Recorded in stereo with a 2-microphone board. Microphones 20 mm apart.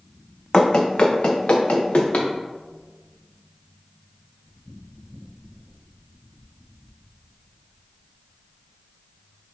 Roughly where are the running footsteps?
Left.